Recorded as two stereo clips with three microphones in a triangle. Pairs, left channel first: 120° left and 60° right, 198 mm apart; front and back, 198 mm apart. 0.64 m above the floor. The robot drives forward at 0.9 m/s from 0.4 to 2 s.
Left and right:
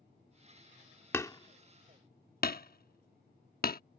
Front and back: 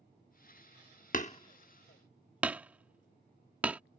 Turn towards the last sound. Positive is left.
turn(degrees=100)